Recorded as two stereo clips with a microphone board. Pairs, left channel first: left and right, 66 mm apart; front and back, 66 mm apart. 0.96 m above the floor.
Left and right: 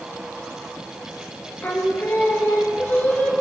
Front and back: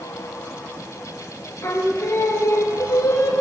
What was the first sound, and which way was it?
Singing, 30° left.